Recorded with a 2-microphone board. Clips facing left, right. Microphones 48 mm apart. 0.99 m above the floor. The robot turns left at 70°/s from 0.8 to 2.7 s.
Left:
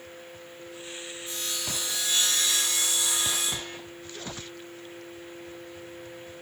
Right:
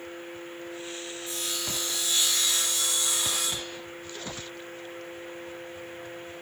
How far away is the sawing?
About 1.4 m.